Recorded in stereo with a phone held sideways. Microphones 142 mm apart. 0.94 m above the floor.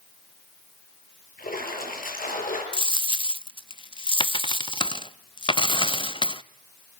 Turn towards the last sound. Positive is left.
turn(degrees=35)  # may be behind; listen again after turning